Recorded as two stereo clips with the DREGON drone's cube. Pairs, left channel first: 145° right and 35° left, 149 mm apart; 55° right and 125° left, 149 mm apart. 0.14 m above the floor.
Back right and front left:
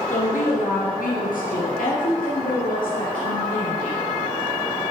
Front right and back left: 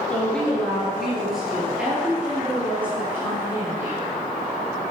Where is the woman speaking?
135° right, 2.5 m; by 4.0 s 160° right, 5 m.